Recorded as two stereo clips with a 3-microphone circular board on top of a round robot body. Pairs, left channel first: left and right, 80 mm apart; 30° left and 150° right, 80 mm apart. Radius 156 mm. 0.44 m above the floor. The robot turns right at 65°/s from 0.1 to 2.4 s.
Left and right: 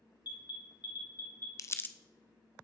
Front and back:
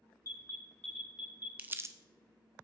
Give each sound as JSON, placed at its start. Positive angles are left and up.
{"t": 0.2, "sound": "an alarm", "azimuth_deg": 70, "distance_m": 3.5}
{"t": 1.6, "sound": "crumpling", "azimuth_deg": 140, "distance_m": 0.6}